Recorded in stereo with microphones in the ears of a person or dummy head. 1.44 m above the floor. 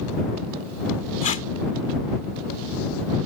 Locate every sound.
1.2 s tape being pulled: 35° left (ahead or behind)